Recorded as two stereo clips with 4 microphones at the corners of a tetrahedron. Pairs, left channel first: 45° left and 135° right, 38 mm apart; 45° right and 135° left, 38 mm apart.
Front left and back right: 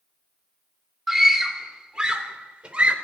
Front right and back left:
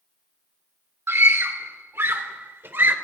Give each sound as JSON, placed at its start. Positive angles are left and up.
{"t": 1.1, "sound": "a scream", "azimuth_deg": 140, "distance_m": 2.5}